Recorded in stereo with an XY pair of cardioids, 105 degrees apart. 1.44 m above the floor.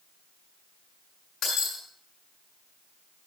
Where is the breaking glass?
65° left, 6.5 m.